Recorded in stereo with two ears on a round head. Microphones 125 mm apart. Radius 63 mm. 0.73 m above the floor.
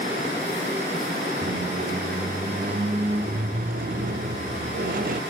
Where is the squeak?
65° right (ahead or behind), 0.7 m.